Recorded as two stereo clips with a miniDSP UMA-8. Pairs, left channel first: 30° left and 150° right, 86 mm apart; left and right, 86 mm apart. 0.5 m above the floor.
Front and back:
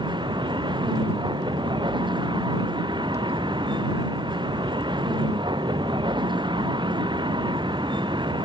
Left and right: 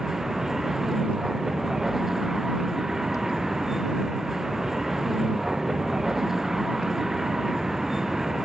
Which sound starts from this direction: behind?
A vehicle, at 0.0 s.